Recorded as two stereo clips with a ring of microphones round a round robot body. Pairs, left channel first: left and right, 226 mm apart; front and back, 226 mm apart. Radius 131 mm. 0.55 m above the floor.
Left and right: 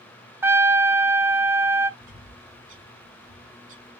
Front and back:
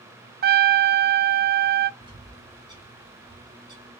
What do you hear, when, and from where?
0.4 s a trumpet: 165° right, 0.5 m
2.0 s a bird: 110° right, 2.5 m